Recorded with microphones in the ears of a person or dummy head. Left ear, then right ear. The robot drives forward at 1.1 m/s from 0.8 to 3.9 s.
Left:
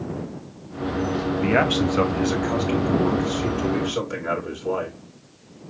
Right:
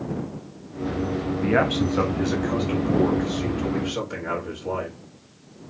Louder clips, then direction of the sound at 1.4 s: Left 1 dB; 10° left (ahead or behind).